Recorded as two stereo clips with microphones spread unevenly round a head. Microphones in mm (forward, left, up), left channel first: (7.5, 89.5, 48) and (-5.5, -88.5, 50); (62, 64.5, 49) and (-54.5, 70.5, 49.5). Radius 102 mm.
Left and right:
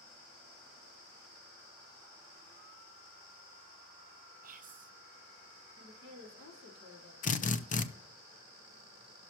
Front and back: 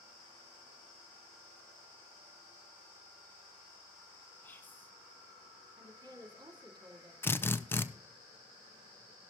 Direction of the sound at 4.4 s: 75° right.